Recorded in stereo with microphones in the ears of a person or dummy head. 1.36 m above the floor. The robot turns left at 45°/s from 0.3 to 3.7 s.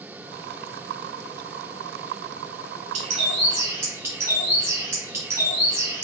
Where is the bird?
130° right, 1.2 m; by 6.0 s 160° right, 1.2 m.